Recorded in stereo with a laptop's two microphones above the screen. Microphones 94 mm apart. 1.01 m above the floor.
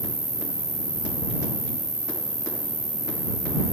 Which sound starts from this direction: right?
An insect, at 0.0 s.